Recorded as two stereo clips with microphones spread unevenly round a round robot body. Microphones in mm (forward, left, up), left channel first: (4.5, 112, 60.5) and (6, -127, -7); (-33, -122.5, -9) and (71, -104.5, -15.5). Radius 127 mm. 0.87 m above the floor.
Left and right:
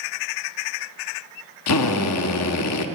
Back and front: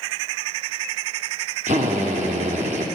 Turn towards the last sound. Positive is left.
turn(degrees=65)